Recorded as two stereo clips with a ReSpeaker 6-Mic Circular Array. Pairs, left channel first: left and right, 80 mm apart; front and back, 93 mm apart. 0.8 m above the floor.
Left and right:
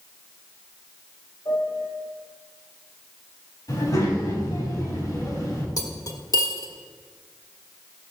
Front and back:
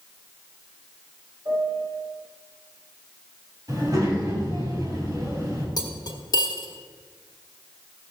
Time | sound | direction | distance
1.4 | a piano | 125° left | 4.5 m
3.7 | a child speaking | 130° left | 4 m
5.8 | cutlery clinking | 45° left | 1.5 m